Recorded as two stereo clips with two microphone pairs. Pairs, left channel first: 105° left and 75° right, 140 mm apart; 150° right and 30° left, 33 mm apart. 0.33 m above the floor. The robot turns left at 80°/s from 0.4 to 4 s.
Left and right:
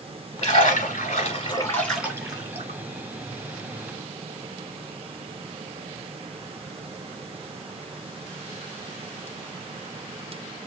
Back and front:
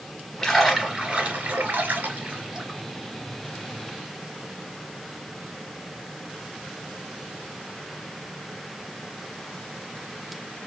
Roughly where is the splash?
Behind left.